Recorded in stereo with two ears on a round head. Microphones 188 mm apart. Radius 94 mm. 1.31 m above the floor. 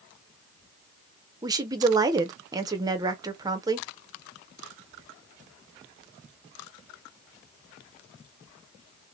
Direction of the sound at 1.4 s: 15° right (ahead or behind).